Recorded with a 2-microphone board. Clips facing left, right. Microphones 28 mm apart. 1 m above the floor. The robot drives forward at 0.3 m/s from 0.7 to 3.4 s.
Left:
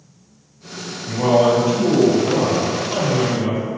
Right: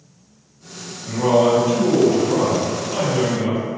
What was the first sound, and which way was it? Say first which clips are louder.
A man speaking: left 1 dB; 5° left (ahead or behind).